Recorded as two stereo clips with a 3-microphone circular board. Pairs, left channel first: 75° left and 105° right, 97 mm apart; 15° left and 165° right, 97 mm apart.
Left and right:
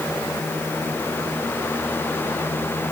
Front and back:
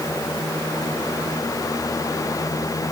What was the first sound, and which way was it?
Only background noise.